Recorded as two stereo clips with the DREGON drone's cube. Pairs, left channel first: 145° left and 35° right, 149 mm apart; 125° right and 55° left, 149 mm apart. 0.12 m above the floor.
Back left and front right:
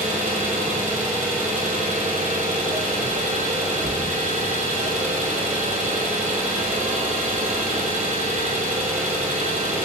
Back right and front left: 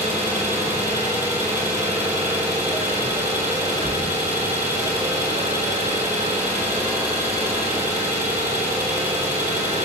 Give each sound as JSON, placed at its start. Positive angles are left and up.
{"t": 0.0, "sound": "an engine running", "azimuth_deg": -20, "distance_m": 0.8}